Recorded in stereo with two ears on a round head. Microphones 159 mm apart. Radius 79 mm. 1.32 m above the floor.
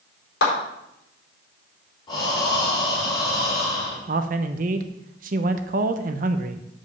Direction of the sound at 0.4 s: 75° left (ahead or behind).